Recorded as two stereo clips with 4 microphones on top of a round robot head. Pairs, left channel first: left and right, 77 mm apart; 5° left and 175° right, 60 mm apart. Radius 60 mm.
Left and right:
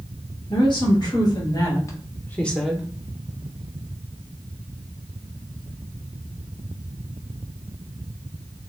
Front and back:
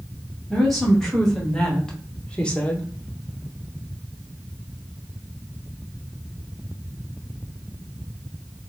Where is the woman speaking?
90° left, 2.0 m; by 2.9 s 30° right, 0.9 m.